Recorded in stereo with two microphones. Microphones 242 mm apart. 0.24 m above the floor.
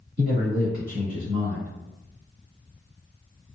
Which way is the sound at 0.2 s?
35° right (ahead or behind).